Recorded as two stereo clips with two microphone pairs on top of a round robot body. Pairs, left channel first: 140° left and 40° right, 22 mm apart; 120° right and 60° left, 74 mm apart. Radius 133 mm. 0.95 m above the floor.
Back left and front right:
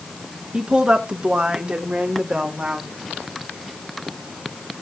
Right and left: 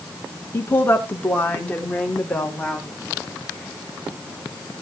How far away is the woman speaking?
About 2.5 m.